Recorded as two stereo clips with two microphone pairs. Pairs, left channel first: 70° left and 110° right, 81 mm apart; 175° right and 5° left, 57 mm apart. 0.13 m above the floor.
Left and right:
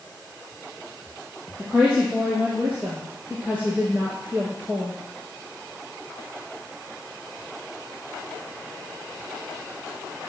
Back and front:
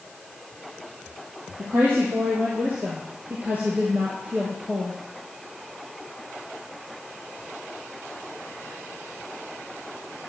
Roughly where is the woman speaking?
Ahead right.